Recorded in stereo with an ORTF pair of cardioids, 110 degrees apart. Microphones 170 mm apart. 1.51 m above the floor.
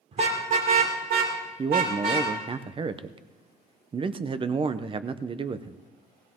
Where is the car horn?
40° right, 2.5 m; by 2.3 s 75° right, 4.5 m.